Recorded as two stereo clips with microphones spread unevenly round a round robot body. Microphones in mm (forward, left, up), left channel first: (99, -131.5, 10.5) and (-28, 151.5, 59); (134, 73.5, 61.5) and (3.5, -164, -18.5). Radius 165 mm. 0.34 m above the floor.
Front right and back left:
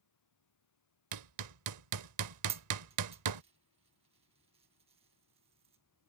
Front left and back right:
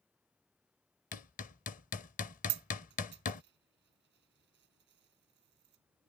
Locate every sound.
0.0 s running water: 35° right
1.1 s hammering: 135° left
2.5 s a dropped coin: 170° right